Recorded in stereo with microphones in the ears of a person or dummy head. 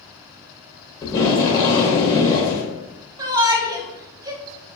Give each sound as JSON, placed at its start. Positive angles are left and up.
{"t": 1.0, "sound": "tape being pulled", "side_deg": 20, "distance_m": 0.8}
{"t": 3.2, "sound": "a shout", "side_deg": -20, "distance_m": 0.6}